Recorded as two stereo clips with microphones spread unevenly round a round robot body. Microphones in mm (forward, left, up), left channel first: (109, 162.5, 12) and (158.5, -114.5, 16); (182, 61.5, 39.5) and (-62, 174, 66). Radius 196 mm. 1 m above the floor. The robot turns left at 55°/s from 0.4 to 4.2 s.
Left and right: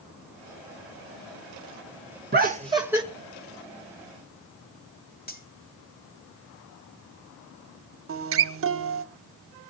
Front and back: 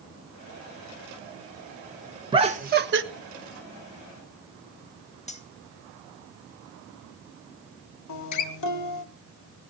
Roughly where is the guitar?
Ahead right.